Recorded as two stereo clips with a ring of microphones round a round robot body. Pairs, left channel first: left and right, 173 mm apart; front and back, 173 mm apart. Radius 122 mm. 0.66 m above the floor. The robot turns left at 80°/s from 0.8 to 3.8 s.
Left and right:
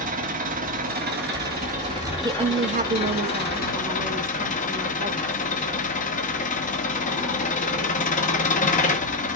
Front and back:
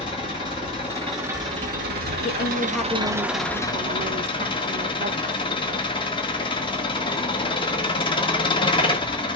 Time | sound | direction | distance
0.0 | an engine running | 65° right | 1.2 m
2.2 | a woman speaking | 30° right | 0.6 m